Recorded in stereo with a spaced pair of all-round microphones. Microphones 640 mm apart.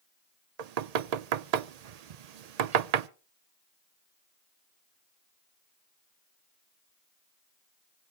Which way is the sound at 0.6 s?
75° right (ahead or behind).